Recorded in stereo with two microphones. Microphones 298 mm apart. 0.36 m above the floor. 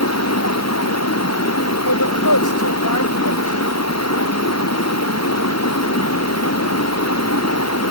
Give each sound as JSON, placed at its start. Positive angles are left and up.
{"t": 0.0, "sound": "running water", "side_deg": 60}
{"t": 1.9, "sound": "a woman speaking", "side_deg": 85}